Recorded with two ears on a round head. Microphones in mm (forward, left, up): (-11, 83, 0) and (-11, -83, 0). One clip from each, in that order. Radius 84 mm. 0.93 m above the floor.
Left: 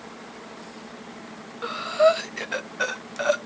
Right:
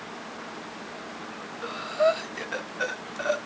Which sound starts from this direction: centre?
Breathing, at 1.6 s.